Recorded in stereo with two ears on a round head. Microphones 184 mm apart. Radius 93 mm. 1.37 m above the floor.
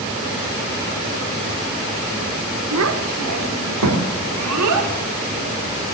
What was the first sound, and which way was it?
A child speaking, 65° right (ahead or behind).